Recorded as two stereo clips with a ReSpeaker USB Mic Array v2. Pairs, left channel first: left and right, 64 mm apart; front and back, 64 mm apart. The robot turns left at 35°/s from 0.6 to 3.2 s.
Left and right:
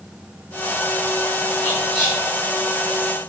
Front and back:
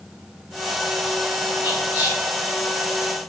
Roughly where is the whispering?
Behind.